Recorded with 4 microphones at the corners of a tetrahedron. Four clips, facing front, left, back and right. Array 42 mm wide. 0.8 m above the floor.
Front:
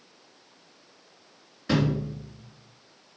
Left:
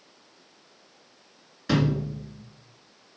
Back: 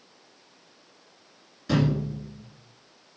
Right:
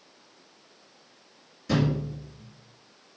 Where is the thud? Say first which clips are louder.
Left 1 dB, back 1 dB; 60° left, 2.5 m.